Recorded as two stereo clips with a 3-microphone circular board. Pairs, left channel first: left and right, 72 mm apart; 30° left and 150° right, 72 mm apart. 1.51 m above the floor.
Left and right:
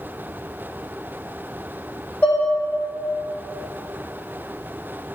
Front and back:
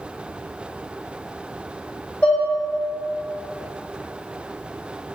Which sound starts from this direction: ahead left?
Dishes clattering, at 2.2 s.